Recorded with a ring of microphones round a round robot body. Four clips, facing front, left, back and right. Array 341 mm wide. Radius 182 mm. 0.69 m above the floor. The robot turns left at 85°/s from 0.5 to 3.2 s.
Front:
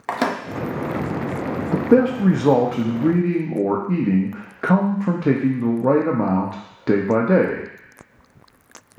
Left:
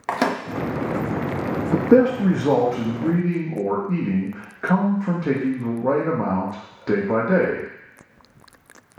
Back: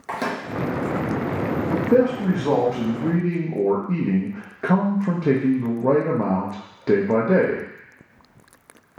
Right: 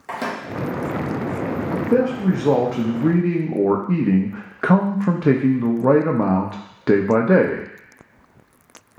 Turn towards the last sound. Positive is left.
turn(degrees=-70)